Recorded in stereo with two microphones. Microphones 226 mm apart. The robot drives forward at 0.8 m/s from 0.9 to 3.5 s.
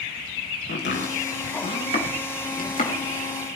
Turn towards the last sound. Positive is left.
turn(degrees=30)  # may be behind; listen again after turning